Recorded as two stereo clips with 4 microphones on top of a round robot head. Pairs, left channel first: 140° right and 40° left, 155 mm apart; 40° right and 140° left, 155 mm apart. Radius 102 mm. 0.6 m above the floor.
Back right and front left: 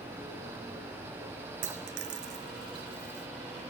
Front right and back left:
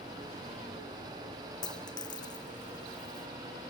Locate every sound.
1.6 s a dropped coin: 25° left